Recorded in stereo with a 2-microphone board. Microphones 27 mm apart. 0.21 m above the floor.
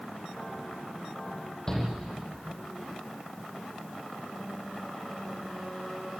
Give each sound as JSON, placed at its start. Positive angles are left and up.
{"t": 1.7, "sound": "a shout", "side_deg": 25, "distance_m": 8.5}